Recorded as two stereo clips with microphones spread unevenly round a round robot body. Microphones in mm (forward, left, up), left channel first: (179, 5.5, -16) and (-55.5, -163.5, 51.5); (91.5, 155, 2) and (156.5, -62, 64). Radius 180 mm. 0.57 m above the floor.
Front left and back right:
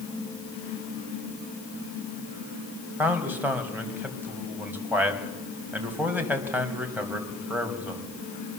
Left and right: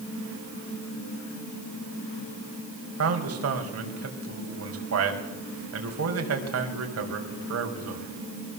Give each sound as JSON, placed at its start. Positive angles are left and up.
{"t": 3.0, "sound": "a man speaking", "azimuth_deg": -55, "distance_m": 4.5}